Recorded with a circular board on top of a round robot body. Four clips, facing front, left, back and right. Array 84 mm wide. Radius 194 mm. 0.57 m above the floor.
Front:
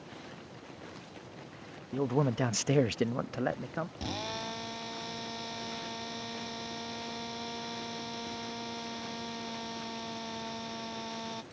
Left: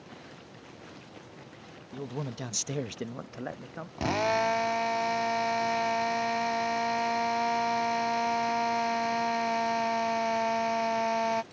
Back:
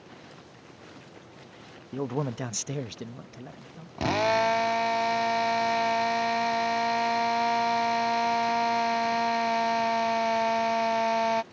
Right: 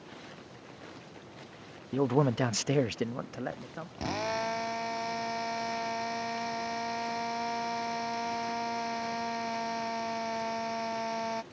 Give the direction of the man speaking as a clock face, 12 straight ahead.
3 o'clock.